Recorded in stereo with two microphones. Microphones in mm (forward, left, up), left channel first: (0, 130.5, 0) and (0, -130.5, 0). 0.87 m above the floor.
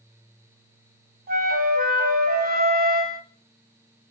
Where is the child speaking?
No child speaking in this recording.